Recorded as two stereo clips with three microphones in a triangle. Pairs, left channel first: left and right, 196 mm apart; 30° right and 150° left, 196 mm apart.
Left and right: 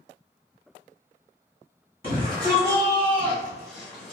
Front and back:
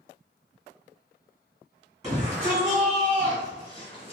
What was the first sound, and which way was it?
A shout, 100° left.